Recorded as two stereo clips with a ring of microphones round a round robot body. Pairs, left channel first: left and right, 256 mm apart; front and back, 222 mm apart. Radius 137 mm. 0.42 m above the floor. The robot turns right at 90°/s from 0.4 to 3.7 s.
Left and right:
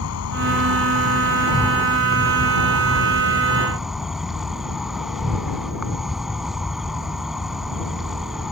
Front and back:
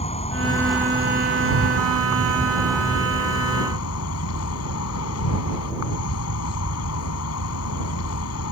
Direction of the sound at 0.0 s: 60° left.